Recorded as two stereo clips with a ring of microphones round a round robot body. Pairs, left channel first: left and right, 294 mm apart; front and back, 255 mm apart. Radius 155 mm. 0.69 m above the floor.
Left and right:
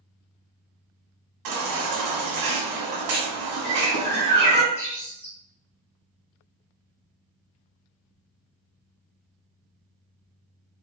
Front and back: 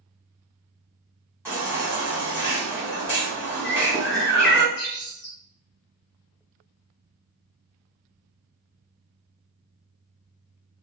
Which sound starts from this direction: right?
A baby crying, at 1.4 s.